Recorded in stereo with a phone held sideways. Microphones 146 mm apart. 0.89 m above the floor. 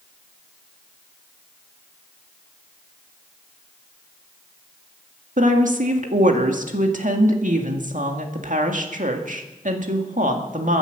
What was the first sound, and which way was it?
A woman speaking, 65° right (ahead or behind).